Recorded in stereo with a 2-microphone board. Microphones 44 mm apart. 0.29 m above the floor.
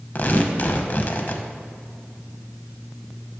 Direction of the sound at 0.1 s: 45° left (ahead or behind).